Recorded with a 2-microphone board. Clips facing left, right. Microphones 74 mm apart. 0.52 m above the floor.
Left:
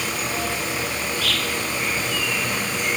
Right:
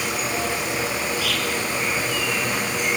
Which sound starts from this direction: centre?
An insect, at 0.0 s.